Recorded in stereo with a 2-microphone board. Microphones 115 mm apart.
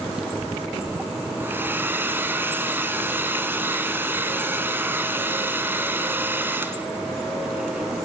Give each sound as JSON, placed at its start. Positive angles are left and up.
{"t": 1.4, "sound": "a hair dryer", "side_deg": -20, "distance_m": 1.3}